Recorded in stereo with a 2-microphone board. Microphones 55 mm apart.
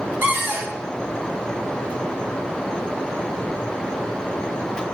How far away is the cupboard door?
About 0.8 m.